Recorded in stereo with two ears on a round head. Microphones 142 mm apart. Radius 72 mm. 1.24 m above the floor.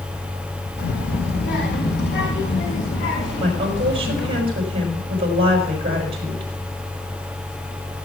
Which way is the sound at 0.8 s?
85° left.